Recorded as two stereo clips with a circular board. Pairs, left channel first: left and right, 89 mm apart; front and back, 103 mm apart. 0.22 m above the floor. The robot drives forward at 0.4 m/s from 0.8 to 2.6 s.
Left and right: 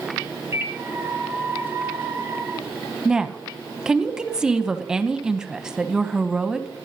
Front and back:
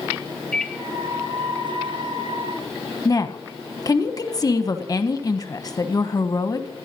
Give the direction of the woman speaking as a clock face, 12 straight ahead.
12 o'clock.